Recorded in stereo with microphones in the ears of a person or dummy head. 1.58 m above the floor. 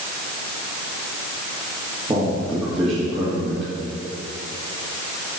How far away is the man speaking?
About 2.5 m.